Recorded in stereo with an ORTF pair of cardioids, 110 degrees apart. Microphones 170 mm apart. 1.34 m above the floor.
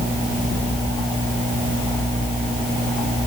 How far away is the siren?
I don't hear a siren.